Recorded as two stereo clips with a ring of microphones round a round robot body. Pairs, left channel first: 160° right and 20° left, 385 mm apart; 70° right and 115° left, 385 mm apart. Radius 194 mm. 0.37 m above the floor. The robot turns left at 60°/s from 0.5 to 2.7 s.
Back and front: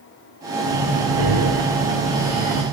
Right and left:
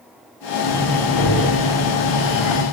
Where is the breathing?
20° left, 8 m; by 2.6 s 100° right, 8 m.